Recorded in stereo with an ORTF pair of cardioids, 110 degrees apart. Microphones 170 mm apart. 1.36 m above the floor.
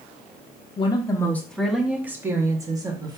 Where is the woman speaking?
30° left, 0.7 m; by 3.2 s 25° right, 1.6 m.